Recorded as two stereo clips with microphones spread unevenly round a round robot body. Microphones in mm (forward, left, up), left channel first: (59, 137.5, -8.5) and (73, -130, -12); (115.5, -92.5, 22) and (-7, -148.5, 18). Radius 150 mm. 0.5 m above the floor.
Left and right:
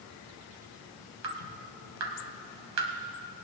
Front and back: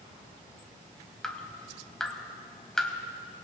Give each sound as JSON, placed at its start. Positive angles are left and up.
{"t": 1.2, "sound": "dripping", "azimuth_deg": -60, "distance_m": 1.7}